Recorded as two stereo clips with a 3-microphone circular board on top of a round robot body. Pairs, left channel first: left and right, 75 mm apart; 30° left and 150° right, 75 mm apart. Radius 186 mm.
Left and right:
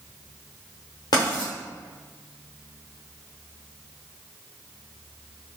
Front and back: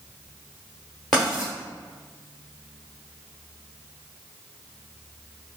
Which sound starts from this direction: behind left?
Writing, at 1.1 s.